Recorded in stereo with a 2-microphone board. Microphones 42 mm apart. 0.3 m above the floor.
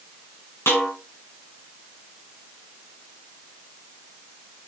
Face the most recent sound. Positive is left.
turn(degrees=80)